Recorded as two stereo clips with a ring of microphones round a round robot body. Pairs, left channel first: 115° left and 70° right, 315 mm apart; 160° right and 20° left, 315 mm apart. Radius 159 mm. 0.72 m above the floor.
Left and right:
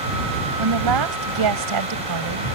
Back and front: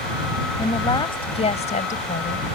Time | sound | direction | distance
0.6 | a woman speaking | 80° right | ?